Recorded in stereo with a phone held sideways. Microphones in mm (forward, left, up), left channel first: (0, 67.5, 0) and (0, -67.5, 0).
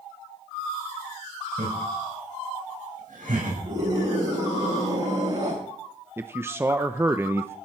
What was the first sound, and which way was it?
Laughter, 70° right (ahead or behind).